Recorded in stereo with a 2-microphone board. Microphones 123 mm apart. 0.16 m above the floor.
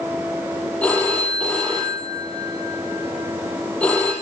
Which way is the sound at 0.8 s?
10° left (ahead or behind).